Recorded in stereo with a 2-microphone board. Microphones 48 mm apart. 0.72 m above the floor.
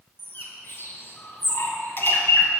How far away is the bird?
About 1.9 m.